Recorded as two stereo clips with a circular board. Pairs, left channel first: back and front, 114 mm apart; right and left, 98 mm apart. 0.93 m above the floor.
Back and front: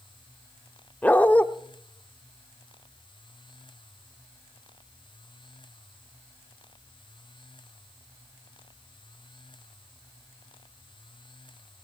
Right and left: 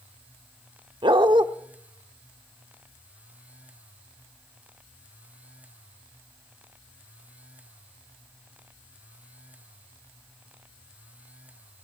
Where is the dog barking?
105° left, 0.9 m.